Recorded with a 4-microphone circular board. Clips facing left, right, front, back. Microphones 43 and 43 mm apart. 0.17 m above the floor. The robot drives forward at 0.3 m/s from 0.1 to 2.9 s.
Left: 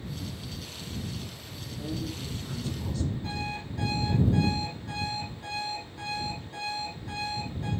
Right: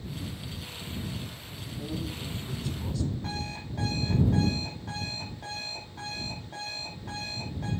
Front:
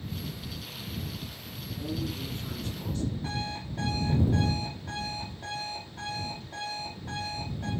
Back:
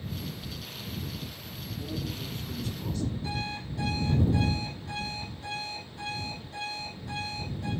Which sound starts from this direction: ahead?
A man speaking, at 1.5 s.